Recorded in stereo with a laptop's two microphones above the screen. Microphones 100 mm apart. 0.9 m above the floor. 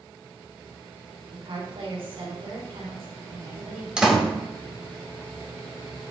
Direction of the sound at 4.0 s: 10° right (ahead or behind).